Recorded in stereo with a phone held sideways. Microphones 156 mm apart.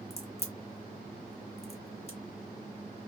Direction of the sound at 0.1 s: 40° left (ahead or behind).